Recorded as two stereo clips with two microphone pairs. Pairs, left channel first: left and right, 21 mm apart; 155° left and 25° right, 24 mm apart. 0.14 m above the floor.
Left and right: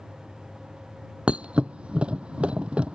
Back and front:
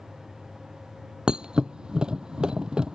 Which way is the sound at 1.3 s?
75° right.